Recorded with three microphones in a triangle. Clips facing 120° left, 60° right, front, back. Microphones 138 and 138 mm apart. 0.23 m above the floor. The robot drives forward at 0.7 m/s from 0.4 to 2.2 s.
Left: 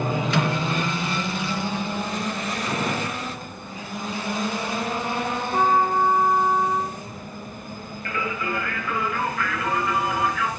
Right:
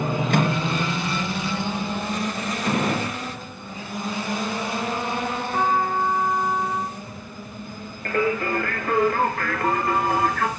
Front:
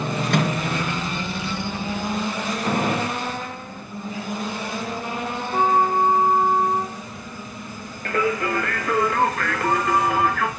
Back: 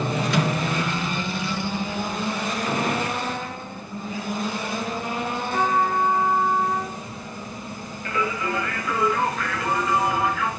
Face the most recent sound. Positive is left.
turn(degrees=-25)